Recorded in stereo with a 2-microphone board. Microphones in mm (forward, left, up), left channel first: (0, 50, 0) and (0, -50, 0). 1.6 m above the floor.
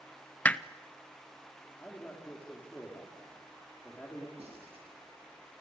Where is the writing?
75° right (ahead or behind), 7.5 m.